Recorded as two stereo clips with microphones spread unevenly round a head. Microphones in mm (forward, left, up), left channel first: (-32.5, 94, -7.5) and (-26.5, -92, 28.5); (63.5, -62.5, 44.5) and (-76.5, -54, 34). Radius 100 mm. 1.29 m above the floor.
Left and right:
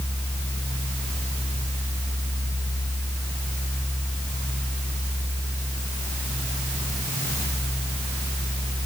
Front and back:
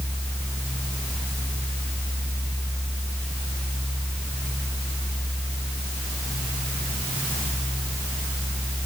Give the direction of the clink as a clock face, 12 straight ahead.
I don't hear a clink.